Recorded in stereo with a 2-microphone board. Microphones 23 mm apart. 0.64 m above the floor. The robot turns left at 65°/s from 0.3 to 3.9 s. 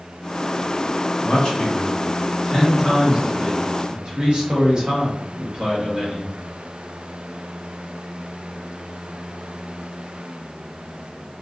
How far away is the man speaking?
About 1.0 m.